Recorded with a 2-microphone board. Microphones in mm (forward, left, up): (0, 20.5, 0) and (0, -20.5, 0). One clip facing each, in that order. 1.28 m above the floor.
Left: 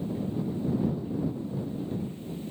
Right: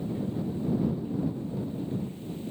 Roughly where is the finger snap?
I don't hear a finger snap.